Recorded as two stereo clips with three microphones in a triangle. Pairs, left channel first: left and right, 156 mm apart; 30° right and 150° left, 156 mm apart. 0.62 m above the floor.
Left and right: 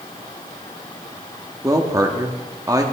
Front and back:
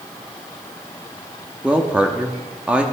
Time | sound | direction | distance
1.6 | a woman speaking | 135° right | 1.0 m